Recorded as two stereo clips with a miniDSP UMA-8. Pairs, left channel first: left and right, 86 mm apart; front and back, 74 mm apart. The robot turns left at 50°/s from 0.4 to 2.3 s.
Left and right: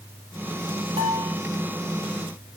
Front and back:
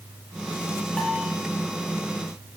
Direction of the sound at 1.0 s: 80° right.